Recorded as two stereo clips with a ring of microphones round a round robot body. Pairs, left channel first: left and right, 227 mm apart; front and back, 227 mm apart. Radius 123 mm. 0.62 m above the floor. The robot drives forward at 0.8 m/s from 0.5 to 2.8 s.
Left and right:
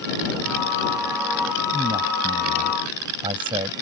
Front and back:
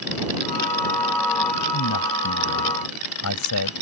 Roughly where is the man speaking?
Ahead.